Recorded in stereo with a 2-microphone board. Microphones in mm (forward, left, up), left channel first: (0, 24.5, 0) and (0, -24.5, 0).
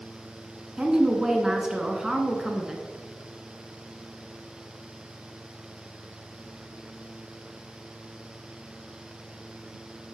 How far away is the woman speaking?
About 1.2 m.